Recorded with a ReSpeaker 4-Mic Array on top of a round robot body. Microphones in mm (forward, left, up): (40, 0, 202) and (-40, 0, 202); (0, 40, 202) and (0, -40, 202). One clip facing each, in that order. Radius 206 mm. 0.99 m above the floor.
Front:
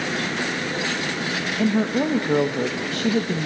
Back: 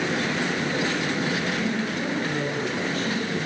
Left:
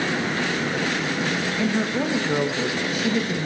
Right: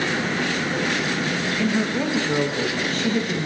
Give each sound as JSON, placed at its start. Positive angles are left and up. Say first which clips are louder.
{"t": 1.6, "sound": "a woman speaking", "louder": "front 6 dB, right 1 dB", "azimuth_deg": 10, "distance_m": 1.4}